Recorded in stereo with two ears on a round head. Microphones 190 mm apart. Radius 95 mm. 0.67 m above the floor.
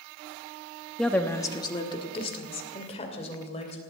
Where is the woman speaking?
Centre (ahead or behind), 0.9 m; by 3.8 s 30° left (ahead or behind), 3.5 m.